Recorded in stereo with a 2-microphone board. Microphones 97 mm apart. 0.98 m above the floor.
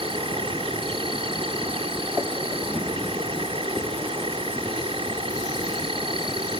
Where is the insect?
75° right (ahead or behind).